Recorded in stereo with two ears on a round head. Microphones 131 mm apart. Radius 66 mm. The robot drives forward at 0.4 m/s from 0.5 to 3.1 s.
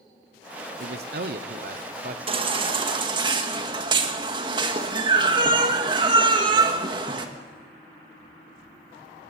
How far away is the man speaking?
About 0.9 m.